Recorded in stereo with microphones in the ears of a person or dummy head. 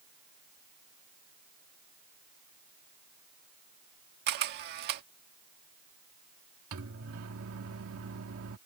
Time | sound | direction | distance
4.3 | a camera shutter | 55° right (ahead or behind) | ?
6.7 | a microwave | 75° right (ahead or behind) | ?